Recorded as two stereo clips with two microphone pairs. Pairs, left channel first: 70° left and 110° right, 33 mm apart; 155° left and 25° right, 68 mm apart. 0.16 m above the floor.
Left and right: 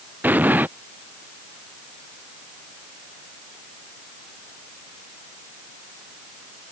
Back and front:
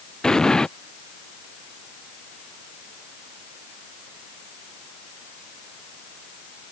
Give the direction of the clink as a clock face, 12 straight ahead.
No clink in this recording.